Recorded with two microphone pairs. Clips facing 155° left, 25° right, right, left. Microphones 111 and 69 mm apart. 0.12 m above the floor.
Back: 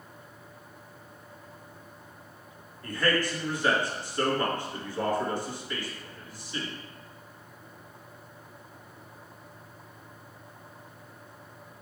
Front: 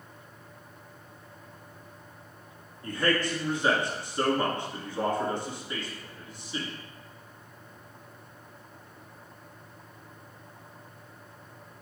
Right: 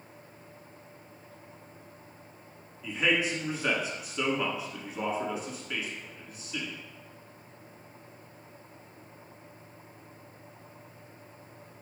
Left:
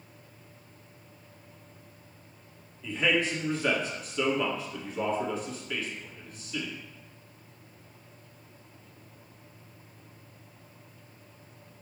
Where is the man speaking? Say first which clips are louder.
Even, left 1 dB; 25° right, 1.1 m.